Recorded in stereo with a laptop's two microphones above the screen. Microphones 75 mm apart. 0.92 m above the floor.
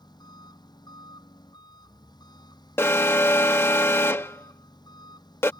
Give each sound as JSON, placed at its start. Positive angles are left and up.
{"t": 0.0, "sound": "an engine running", "side_deg": 75}
{"t": 2.8, "sound": "an alarm", "side_deg": 35}